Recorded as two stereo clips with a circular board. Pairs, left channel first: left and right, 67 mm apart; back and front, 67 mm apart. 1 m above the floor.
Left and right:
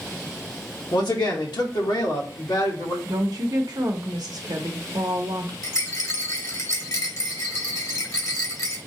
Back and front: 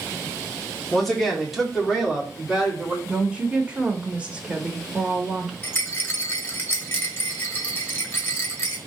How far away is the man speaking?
About 1.3 m.